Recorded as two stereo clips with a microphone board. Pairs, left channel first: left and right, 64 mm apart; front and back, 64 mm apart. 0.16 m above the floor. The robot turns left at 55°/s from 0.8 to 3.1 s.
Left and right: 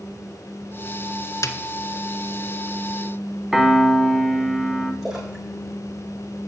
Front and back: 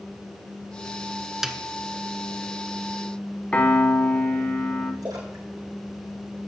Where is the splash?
175° right, 4 m.